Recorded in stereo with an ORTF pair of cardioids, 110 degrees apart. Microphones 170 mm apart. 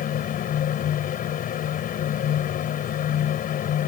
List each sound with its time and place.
0.0 s a fan: 60° left